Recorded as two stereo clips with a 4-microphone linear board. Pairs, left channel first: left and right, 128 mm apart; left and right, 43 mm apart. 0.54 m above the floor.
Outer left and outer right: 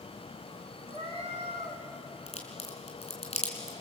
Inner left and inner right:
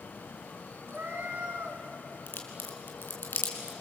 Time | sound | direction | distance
0.9 | a cat meowing | 55° right (ahead or behind) | 2.5 m
2.3 | a crack | 55° left (ahead or behind) | 3.5 m